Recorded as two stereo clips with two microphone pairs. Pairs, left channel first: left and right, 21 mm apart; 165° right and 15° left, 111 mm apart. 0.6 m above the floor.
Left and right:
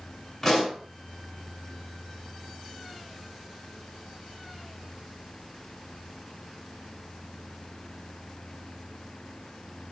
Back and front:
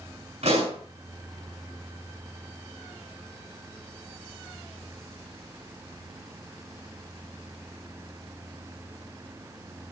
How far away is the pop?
About 6.5 m.